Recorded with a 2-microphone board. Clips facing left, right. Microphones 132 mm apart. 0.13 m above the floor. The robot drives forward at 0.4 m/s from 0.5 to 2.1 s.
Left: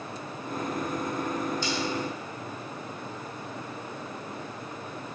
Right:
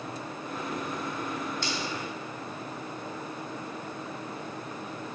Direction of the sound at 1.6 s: 70° right (ahead or behind).